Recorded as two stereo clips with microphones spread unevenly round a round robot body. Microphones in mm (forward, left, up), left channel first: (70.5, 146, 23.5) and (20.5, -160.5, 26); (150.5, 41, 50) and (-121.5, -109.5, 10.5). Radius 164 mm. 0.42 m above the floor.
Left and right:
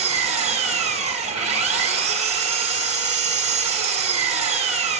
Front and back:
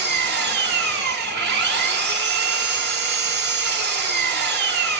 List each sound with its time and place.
0.0 s an engine running: 160° right, 1.2 m